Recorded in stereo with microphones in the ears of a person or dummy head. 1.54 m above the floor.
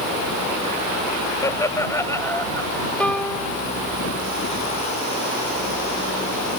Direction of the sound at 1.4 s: 15° left (ahead or behind).